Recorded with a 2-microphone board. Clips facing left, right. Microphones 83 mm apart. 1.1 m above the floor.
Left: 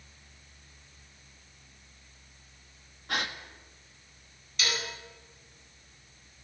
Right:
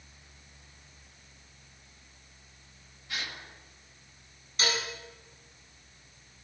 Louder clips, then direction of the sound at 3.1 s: Left 6 dB; 55° left (ahead or behind).